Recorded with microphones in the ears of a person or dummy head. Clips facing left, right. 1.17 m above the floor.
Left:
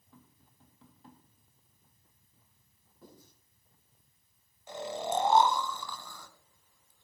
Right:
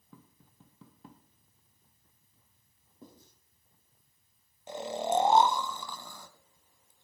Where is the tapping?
70° right (ahead or behind), 1.7 m.